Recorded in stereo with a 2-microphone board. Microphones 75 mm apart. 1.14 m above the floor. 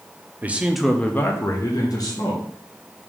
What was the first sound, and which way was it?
A man speaking, 20° right (ahead or behind).